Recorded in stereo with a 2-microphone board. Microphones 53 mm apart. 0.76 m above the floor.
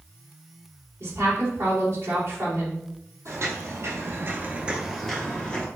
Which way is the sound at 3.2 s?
60° right (ahead or behind).